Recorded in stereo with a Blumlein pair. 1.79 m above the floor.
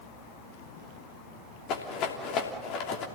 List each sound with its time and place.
1.7 s a rattle: 35° left, 3 m